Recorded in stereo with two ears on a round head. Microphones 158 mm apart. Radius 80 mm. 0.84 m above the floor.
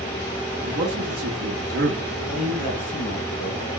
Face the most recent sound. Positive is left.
turn(degrees=35)  # may be behind; listen again after turning